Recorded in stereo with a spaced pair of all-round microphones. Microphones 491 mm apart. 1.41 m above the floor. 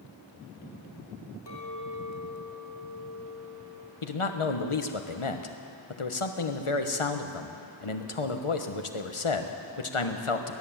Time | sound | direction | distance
1.5 | a clink | 55° left (ahead or behind) | 3 m
4.0 | a man speaking | 85° left | 1.2 m